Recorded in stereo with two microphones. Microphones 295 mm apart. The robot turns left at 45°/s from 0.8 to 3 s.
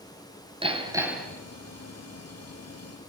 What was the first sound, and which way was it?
Hammering, 20° right (ahead or behind).